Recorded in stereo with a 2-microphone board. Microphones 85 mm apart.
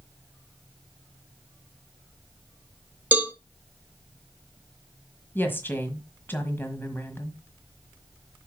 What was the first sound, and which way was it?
A cowbell, 20° right (ahead or behind).